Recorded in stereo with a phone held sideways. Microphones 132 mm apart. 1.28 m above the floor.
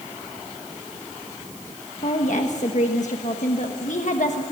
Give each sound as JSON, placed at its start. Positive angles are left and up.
{"t": 2.0, "sound": "a woman speaking", "side_deg": 60, "distance_m": 1.3}